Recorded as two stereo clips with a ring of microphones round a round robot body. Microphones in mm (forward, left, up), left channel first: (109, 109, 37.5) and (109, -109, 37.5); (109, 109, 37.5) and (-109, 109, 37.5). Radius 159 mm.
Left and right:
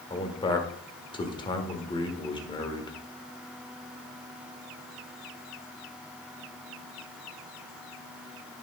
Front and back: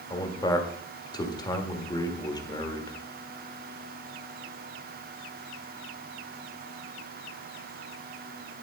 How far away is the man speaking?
About 1.5 m.